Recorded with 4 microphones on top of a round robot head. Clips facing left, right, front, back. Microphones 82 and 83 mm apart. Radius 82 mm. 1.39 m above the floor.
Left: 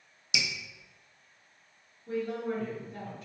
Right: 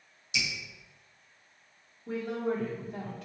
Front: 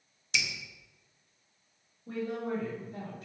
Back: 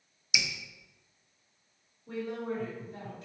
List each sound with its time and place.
0.3 s dripping: 100° left, 0.8 m
2.1 s a woman speaking: 60° right, 1.9 m